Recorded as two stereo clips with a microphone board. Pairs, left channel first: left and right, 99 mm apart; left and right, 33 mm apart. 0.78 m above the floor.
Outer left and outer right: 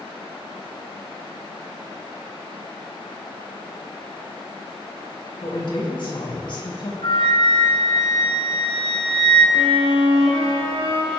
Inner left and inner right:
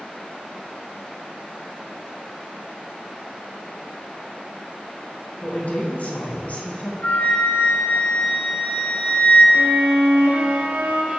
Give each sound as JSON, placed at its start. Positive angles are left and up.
{"t": 5.4, "sound": "a woman speaking", "side_deg": 55, "distance_m": 4.5}
{"t": 7.0, "sound": "a flute", "side_deg": 65, "distance_m": 5.5}
{"t": 9.5, "sound": "a violin", "side_deg": -75, "distance_m": 3.0}